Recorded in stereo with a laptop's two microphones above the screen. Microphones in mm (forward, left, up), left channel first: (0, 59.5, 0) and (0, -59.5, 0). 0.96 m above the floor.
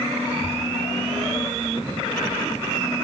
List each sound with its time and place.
0.3 s a child speaking: 80° right, 4 m; by 2.8 s 75° right (ahead or behind), 6 m